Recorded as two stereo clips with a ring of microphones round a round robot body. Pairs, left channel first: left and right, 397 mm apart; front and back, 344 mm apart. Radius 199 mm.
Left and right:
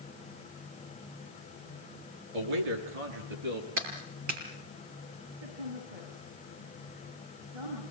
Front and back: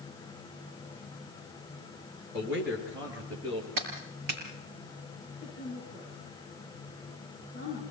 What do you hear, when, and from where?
2.3 s a man speaking: 90° right, 5.5 m; by 3.7 s 100° right, 6 m
3.8 s a clap: 140° right, 6 m
5.4 s a woman speaking: 75° right, 7.5 m